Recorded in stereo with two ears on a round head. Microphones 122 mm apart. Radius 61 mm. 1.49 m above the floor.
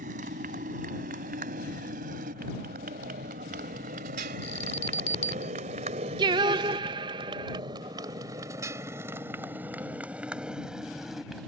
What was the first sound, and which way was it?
A motorcycle, 70° right (ahead or behind).